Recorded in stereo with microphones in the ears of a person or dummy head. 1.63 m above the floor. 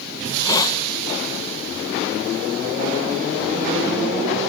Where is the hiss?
25° left (ahead or behind), 1.3 m.